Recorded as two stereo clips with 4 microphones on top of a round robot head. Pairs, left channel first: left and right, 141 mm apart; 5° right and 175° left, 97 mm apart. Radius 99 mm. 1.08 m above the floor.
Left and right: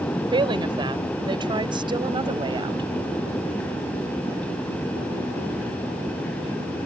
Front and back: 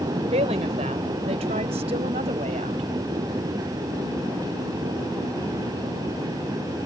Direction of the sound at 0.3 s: 150° right.